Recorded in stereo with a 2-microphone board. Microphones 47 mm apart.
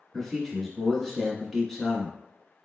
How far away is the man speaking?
About 1.0 m.